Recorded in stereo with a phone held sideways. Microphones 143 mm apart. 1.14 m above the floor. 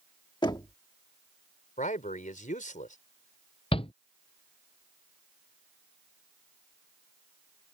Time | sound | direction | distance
0.4 | knocking | 30° left (ahead or behind) | ?
1.8 | a man speaking | 65° left (ahead or behind) | ?
3.7 | a shout | 40° left (ahead or behind) | ?